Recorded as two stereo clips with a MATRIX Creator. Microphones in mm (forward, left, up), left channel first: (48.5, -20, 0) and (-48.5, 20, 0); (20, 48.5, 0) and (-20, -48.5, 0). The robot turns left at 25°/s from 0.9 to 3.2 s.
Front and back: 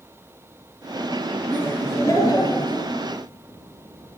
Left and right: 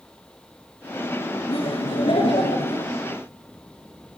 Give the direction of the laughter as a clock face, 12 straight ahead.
10 o'clock.